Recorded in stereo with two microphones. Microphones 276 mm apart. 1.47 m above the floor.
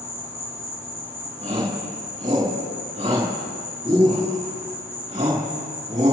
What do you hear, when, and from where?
0.0 s an insect: 10° right (ahead or behind), 4.5 m
1.4 s a shout: 25° right (ahead or behind), 3.5 m